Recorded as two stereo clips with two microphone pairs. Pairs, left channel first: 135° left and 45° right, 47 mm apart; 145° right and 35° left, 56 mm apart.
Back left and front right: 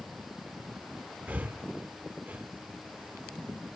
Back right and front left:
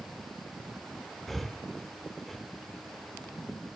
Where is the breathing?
60° right, 0.5 m.